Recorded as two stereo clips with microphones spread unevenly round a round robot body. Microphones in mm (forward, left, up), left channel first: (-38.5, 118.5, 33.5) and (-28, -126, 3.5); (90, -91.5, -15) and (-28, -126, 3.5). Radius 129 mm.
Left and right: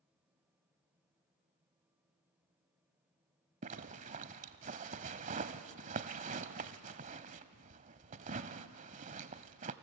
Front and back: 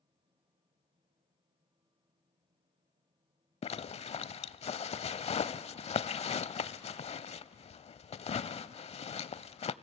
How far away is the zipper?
About 0.6 m.